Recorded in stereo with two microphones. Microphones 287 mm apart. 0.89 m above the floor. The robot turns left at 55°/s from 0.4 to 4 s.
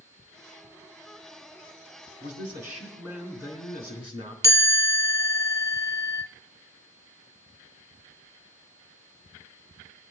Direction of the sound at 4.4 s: 65° right (ahead or behind).